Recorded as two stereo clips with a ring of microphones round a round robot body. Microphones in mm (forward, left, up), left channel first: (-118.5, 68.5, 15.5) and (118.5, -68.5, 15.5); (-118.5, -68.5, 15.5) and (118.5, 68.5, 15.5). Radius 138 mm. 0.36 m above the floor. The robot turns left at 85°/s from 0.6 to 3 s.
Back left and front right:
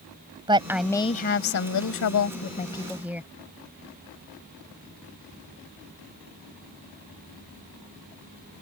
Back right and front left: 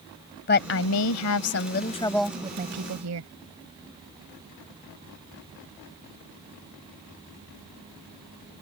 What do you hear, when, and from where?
0.5 s a woman speaking: 100° right; by 3.3 s 55° left